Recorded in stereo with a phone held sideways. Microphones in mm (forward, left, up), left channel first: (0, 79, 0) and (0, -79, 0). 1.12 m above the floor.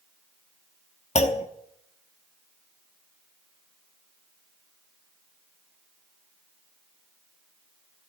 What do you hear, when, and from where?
1.1 s a clunk: 50° left (ahead or behind), 0.9 m